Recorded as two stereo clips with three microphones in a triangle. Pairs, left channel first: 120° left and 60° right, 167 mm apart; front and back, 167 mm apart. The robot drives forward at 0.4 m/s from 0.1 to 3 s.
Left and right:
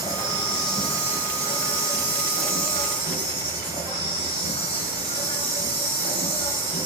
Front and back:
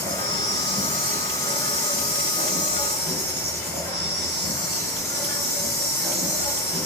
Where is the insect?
165° left, 0.9 m; by 6.9 s 175° left, 2.0 m.